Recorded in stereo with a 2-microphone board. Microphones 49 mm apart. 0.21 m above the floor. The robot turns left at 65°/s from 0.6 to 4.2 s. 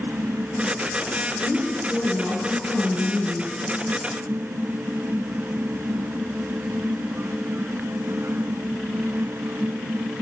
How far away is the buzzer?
I don't hear a buzzer.